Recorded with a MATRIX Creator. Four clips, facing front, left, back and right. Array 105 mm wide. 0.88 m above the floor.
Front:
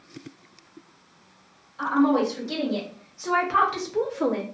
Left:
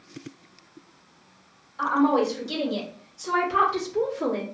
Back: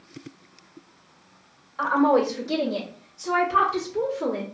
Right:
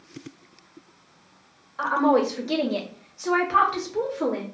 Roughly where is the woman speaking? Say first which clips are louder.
Right 1 dB, back 1 dB; behind right.